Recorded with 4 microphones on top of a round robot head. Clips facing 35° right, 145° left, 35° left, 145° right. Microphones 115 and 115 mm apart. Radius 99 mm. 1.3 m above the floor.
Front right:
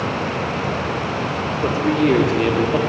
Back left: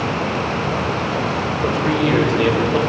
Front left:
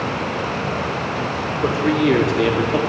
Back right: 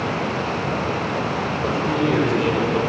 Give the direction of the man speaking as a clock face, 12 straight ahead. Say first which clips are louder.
Front right 2 dB, front left 5 dB; 11 o'clock.